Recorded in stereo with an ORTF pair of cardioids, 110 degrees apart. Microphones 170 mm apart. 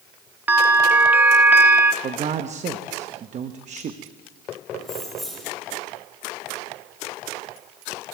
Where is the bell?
10° right, 1.0 m.